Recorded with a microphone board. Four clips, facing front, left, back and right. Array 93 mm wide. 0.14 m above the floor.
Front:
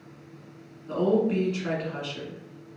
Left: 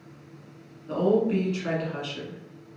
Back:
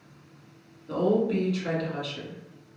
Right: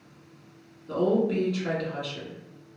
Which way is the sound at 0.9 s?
40° left.